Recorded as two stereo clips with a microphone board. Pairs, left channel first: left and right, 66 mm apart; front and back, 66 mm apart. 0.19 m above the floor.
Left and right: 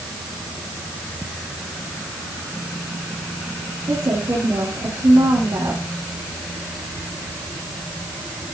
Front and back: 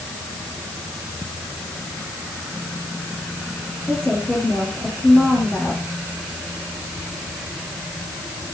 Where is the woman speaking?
70° right, 7 m.